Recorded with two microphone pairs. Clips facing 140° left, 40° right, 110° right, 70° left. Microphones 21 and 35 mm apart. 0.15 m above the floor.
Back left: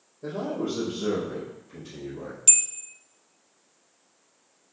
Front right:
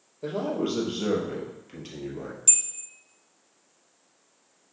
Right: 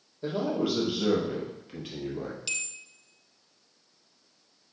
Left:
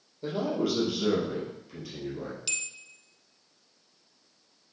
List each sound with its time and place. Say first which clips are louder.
0.2 s a man speaking: front right 2 dB, even; 25° right, 3 m; by 2.4 s 85° right, 3 m
2.5 s a bell: back left 4 dB, even; 170° left, 0.7 m